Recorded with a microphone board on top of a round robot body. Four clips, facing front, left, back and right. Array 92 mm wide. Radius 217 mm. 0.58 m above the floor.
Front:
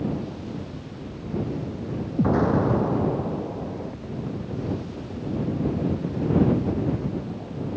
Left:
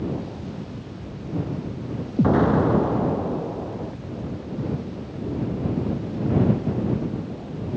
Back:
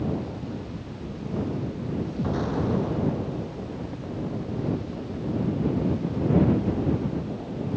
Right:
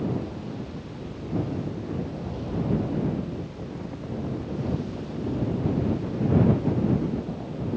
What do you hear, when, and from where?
2.2 s an explosion: 60° left